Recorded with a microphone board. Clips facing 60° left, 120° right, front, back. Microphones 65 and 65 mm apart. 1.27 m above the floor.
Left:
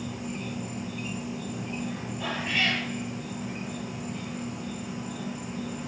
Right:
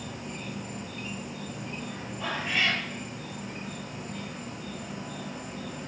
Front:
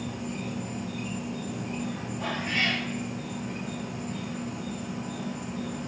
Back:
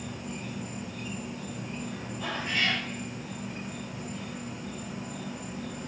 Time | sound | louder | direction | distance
0.0 | an insect | left 3 dB, front 4 dB | 20° right | 0.9 m
2.2 | a cat meowing | even, front 1 dB | 35° right | 2 m